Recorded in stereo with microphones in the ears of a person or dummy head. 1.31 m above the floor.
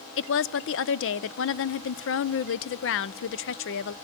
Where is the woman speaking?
60° left (ahead or behind), 0.5 m.